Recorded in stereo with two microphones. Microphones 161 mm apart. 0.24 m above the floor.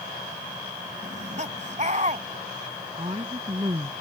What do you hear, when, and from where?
1.0 s laughter: 50° right (ahead or behind)
3.0 s a woman speaking: 35° right (ahead or behind)